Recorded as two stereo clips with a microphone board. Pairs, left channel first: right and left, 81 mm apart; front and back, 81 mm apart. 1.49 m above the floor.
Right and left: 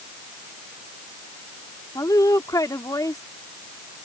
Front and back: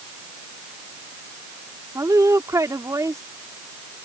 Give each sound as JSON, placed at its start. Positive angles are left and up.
{"t": 1.9, "sound": "a woman speaking", "azimuth_deg": -135}